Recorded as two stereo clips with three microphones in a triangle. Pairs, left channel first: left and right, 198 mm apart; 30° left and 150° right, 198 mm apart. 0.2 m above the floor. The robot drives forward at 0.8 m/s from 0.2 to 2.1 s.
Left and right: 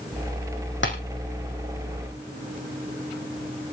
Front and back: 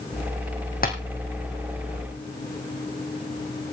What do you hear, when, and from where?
0.8 s tapping: 70° left, 2 m; by 0.9 s 75° left, 2 m